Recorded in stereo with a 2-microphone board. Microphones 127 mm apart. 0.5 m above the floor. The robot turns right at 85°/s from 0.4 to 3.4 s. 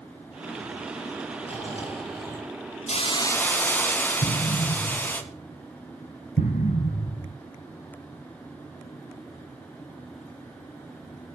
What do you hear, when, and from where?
1.4 s snoring: 70° left, 2 m; by 2.6 s 165° left, 2 m
2.9 s a hiss: 120° left, 1.4 m; by 5.2 s 165° left, 1.4 m
4.2 s an explosion: 75° left (ahead or behind), 0.9 m